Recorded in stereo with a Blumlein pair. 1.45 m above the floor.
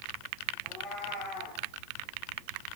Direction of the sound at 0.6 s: 20° left.